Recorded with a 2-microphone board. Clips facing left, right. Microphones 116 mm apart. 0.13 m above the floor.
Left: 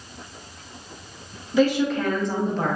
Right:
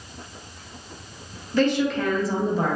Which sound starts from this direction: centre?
A woman speaking, at 1.5 s.